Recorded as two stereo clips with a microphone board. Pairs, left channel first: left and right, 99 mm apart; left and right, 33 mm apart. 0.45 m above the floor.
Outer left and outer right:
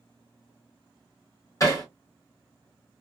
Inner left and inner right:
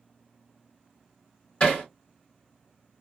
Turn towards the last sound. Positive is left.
turn(degrees=35)  # may be behind; listen again after turning